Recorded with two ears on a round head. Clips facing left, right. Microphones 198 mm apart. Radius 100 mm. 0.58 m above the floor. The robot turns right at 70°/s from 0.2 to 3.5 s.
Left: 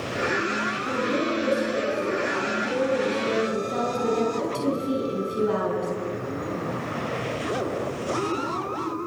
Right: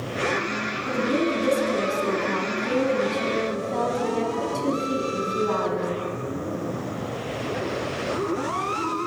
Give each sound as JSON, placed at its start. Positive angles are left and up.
{"t": 0.8, "sound": "a woman speaking", "azimuth_deg": -175, "distance_m": 5.0}